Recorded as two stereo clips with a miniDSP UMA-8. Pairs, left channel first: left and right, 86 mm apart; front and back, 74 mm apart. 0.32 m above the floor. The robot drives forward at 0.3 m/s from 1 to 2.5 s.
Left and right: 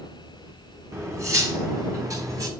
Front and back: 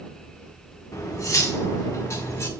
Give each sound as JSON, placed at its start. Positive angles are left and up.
{"t": 0.9, "sound": "cutlery clinking", "azimuth_deg": -40, "distance_m": 1.7}